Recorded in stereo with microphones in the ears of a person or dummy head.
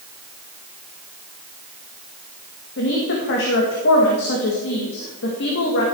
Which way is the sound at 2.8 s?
65° left (ahead or behind).